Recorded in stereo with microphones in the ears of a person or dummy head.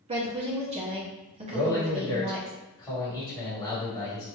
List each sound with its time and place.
0.1 s a woman speaking: 30° right (ahead or behind), 0.6 m
1.5 s a man speaking: 15° left (ahead or behind), 1.4 m